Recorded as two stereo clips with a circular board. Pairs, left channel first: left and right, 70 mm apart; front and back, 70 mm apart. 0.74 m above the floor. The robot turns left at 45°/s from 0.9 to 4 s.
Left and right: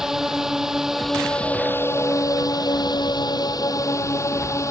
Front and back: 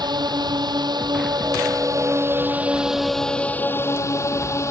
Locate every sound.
0.0 s a drone: 175° right; by 4.7 s 50° left